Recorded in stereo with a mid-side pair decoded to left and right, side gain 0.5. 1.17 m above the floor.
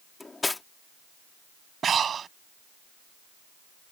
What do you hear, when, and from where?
0.2 s cutlery clinking: 20° left
1.8 s breathing: 45° right